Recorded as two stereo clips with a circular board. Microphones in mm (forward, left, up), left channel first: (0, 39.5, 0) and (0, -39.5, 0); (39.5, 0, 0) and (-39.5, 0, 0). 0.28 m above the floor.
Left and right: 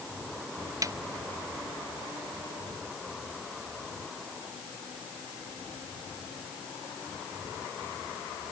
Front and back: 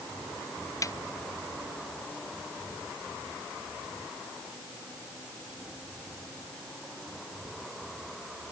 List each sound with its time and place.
0.8 s a snare drum: 45° right